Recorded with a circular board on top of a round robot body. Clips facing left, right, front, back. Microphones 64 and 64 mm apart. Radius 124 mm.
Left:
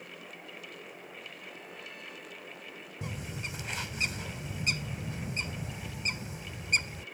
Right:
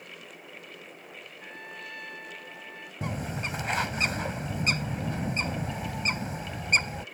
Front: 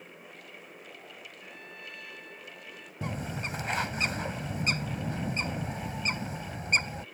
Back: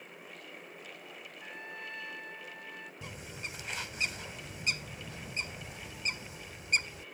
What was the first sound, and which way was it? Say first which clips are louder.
A trumpet: right 4 dB, back 5 dB; 120° right.